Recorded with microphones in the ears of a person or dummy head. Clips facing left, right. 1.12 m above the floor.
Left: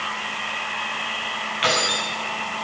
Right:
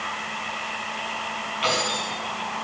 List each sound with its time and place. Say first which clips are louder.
1.6 s keys jangling: left 2 dB; 25° left (ahead or behind), 6 m